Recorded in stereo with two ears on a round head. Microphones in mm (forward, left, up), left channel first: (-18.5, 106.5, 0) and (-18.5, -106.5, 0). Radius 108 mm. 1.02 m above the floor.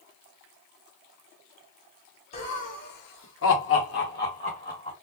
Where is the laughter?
25° left (ahead or behind), 1.4 m; by 4.9 s 30° left (ahead or behind), 1.8 m.